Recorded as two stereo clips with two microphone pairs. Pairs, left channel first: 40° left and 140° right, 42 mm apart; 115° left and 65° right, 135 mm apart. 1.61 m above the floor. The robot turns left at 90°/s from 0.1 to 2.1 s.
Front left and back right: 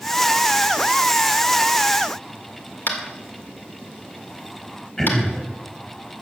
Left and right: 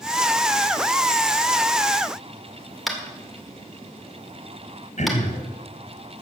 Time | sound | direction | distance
2.9 | tapping | 25° left | 2 m
5.0 | throat clearing | 110° left | 2.5 m